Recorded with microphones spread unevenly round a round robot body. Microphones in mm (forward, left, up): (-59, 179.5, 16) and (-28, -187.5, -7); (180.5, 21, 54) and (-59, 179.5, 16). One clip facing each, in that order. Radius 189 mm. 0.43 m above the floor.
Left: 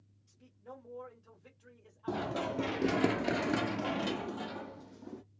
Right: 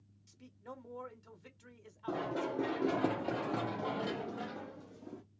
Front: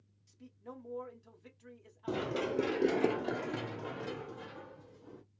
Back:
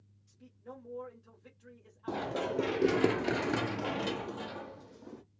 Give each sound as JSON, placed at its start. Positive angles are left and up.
{"t": 0.3, "sound": "a man speaking", "azimuth_deg": -85, "distance_m": 1.2}
{"t": 2.1, "sound": "running footsteps", "azimuth_deg": 30, "distance_m": 0.8}